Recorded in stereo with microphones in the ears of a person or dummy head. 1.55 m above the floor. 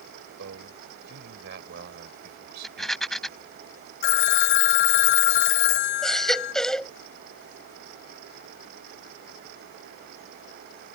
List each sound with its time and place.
0.4 s a man speaking: 70° right (ahead or behind); by 3.6 s 55° right (ahead or behind)
2.6 s a rattle: centre (ahead or behind)
4.0 s a phone ringing: 60° left (ahead or behind)
6.0 s a baby crying: centre (ahead or behind)